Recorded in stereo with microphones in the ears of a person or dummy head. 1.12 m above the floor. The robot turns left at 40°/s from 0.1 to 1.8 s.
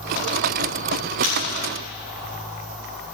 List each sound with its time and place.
1.2 s breaking glass: 50° right (ahead or behind), 6 m; by 1.4 s 45° right (ahead or behind), 6 m